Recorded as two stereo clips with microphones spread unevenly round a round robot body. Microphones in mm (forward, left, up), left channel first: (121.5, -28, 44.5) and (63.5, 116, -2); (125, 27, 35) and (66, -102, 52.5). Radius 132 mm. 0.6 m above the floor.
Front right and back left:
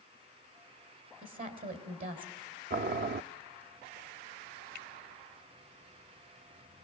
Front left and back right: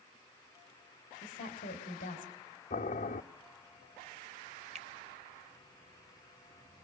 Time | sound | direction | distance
1.2 | a woman speaking | 115° left | 3.5 m
2.7 | boiling | 110° left | 0.5 m
4.8 | a finger snap | 75° right | 1.4 m